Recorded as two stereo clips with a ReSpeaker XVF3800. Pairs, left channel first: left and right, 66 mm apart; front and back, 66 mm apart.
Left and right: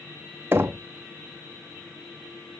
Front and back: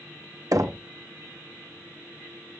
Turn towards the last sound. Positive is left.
turn(degrees=-140)